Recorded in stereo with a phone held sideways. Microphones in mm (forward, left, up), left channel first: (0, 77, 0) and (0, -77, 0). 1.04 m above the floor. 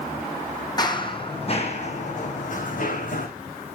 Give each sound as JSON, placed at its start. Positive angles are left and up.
{"t": 0.8, "sound": "running footsteps", "side_deg": 25, "distance_m": 2.0}